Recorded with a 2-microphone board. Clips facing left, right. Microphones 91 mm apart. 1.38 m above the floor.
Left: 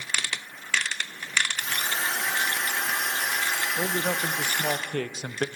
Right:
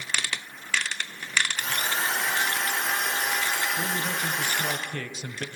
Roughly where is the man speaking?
Left.